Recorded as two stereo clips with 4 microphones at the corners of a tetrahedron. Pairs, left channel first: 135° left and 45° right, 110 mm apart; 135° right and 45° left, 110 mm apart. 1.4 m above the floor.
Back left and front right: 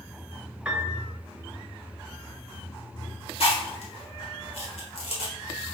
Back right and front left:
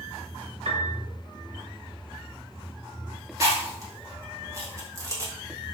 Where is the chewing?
105° left, 1.9 m.